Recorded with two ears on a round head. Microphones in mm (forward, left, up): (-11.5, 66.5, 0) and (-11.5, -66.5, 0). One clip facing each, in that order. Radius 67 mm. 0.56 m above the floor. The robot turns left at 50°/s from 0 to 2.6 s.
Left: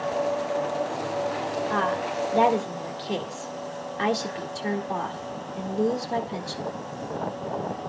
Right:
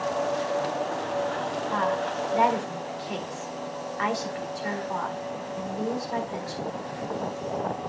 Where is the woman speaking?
85° left, 1.4 m; by 6.7 s 40° left, 1.4 m.